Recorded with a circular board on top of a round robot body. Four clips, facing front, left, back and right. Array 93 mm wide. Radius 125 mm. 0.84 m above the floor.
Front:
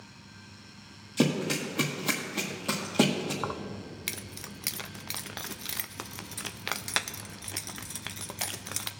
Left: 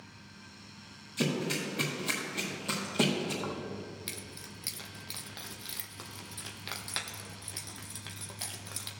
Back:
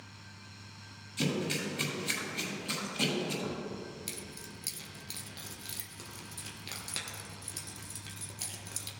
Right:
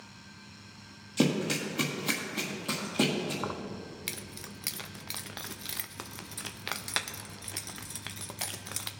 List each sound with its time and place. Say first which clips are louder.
1.2 s running footsteps: right 4 dB, front 6 dB; 40° right, 1.6 m; by 3.3 s 5° left, 1.9 m
3.4 s keys jangling: right 1 dB, front 3 dB; 20° right, 0.5 m